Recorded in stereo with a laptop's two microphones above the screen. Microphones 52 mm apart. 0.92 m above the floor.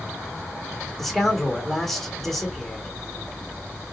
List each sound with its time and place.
1.0 s a man speaking: 5° left (ahead or behind), 1.2 m